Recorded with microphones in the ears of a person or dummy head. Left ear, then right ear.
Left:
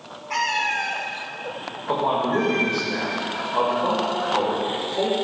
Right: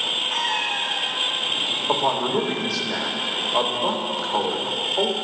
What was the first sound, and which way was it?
A cat meowing, 15° left (ahead or behind).